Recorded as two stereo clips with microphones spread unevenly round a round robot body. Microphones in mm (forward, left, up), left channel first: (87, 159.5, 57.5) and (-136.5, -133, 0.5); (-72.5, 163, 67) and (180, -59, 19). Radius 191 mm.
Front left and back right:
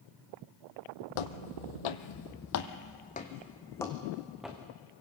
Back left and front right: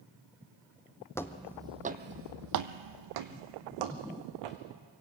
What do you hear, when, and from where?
1.1 s footsteps: 60° left, 1.2 m; by 4.6 s 40° right, 2.5 m